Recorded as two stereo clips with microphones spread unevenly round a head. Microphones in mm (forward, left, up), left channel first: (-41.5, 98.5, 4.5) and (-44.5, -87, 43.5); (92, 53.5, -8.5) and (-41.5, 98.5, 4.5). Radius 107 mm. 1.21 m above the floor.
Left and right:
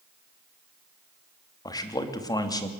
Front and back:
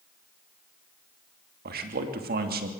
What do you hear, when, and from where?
1.6 s a man speaking: 160° left, 2.5 m